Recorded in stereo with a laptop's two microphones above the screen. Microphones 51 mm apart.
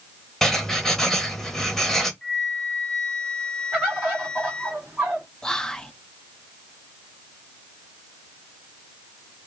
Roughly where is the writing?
Centre.